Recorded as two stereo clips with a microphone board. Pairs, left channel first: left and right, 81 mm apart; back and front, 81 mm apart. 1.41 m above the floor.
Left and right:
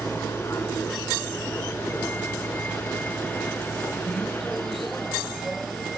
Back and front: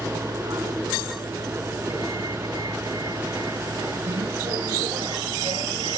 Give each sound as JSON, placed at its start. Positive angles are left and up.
{"t": 0.0, "sound": "a vehicle", "azimuth_deg": 45}